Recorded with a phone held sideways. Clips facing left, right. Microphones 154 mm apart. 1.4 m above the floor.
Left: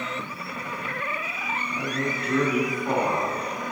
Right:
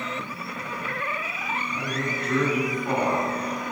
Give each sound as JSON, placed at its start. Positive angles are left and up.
{"t": 1.7, "sound": "a man speaking", "side_deg": 10, "distance_m": 2.0}